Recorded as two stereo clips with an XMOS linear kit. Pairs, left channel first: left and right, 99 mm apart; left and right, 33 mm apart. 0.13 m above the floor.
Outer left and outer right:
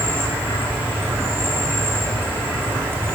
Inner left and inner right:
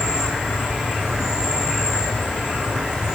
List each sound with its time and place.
0.0 s an insect: 25° right (ahead or behind), 5 m